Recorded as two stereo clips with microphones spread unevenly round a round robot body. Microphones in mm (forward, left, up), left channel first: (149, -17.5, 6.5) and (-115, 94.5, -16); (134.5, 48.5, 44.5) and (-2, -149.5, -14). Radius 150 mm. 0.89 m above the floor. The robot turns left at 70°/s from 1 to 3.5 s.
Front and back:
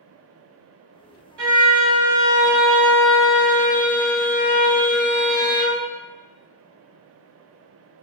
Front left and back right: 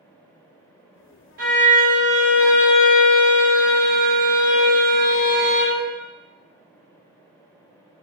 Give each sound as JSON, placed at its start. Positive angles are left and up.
{"t": 1.4, "sound": "a violin", "azimuth_deg": -170, "distance_m": 1.2}